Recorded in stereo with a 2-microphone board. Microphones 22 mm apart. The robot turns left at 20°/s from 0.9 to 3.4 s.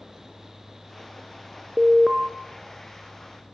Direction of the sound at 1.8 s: 45° right (ahead or behind).